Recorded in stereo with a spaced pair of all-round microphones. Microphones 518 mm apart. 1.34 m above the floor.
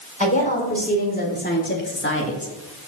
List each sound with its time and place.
0.2 s a woman speaking: 15° left (ahead or behind), 4.5 m; by 2.5 s 30° left (ahead or behind), 1.6 m